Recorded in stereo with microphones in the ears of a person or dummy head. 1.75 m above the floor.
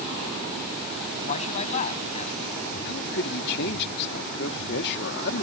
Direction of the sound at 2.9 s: 60° left (ahead or behind).